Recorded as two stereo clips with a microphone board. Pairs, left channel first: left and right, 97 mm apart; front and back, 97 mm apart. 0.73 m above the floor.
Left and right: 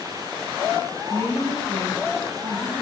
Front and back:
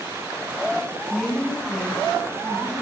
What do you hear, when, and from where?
1.1 s a woman speaking: 75° right, 4.5 m